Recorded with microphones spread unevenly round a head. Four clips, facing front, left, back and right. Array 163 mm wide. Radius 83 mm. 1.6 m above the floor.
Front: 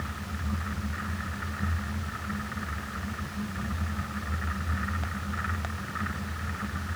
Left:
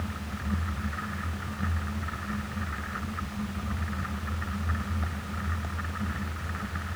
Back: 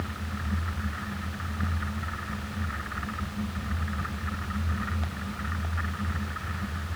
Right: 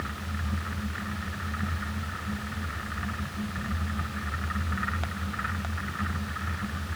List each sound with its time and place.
Only background noise.